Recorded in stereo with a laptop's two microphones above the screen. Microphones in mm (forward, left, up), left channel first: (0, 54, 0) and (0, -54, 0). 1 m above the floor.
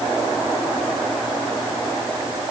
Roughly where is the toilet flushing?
I don't hear a toilet flushing.